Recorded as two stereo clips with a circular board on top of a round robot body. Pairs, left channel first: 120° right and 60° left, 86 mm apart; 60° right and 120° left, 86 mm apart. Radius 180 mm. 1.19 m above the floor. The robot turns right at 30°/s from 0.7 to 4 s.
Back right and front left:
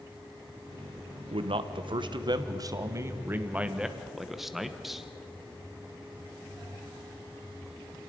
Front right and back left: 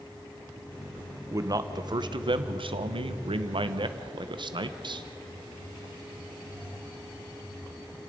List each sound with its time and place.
1.3 s a man speaking: 65° left, 1.2 m; by 5.0 s 150° left, 1.2 m